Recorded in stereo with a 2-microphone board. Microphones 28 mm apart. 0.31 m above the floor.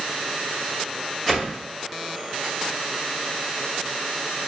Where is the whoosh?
15° left (ahead or behind), 1.3 m.